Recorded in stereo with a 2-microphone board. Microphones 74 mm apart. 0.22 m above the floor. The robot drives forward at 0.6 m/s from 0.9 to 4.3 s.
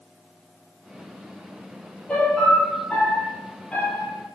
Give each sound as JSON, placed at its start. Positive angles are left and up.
{"t": 2.1, "sound": "a piano", "side_deg": 15, "distance_m": 4.0}